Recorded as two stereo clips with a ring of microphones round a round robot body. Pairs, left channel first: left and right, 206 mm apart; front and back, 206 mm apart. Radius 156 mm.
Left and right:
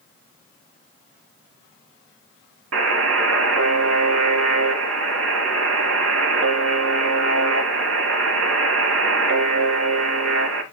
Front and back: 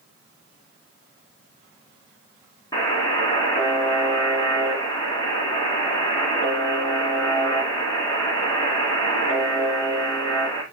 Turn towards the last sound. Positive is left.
turn(degrees=-75)